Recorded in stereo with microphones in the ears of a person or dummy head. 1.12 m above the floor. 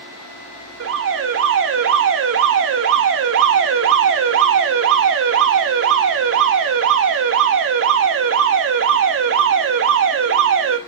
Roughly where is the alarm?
Right.